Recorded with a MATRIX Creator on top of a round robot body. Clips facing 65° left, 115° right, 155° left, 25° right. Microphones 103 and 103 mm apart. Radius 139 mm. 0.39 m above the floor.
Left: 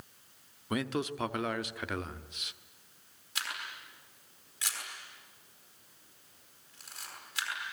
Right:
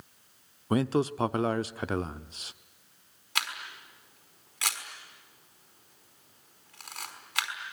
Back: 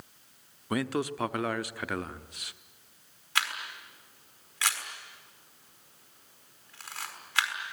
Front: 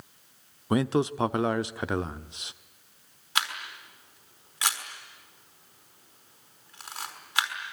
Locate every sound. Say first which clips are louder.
0.7 s a man speaking: right 7 dB, front 5 dB; 75° right, 1.0 m
3.4 s a camera shutter: right 4 dB, front 1 dB; 95° right, 5 m